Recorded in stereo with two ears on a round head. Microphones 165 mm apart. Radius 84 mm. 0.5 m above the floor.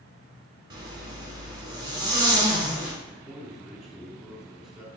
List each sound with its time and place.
0.7 s a zipper: 25° right (ahead or behind), 1.8 m
3.0 s a man speaking: centre (ahead or behind), 1.6 m